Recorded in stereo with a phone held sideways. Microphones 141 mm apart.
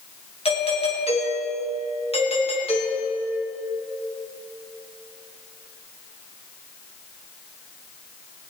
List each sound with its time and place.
0.5 s a doorbell: 45° left (ahead or behind), 2.5 m